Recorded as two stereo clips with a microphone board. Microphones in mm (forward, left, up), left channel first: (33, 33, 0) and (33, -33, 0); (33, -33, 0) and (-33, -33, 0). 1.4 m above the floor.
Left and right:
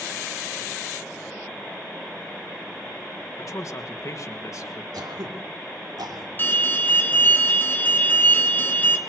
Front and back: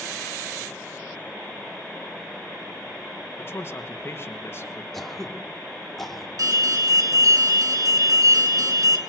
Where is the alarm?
150° left, 3 m.